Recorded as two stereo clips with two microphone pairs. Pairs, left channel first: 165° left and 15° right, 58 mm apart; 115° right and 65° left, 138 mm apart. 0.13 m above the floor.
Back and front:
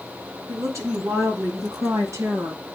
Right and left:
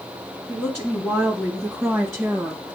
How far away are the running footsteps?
I don't hear running footsteps.